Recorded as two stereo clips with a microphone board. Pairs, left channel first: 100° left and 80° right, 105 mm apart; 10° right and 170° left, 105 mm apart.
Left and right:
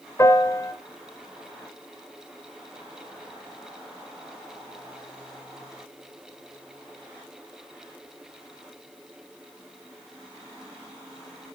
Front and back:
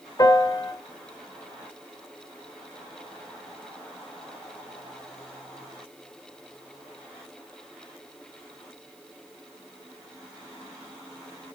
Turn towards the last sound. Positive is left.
turn(degrees=40)